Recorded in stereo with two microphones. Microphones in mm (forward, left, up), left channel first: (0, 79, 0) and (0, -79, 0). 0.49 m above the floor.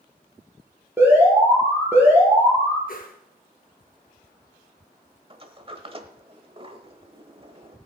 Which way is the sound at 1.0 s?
15° right (ahead or behind).